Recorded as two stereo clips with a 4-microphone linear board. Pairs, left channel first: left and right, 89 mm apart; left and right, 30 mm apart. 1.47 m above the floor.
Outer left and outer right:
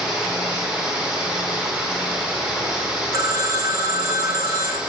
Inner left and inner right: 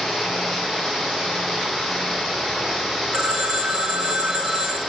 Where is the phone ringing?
35° right (ahead or behind), 0.7 m.